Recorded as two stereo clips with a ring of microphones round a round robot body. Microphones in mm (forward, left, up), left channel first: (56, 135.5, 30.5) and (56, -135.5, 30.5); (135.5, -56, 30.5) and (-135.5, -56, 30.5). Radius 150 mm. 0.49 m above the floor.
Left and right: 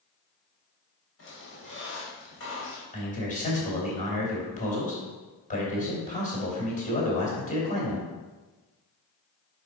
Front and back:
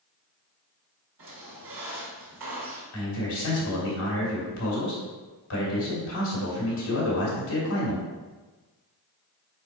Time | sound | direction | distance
1.2 | a squeak | 135° left | 1.8 m
2.9 | a man speaking | 30° left | 2.5 m